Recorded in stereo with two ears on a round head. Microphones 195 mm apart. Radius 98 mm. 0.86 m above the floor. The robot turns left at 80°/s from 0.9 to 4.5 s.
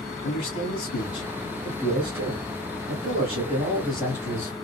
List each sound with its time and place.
0.2 s a man speaking: 65° left, 1.6 m; by 4.5 s 135° left, 1.6 m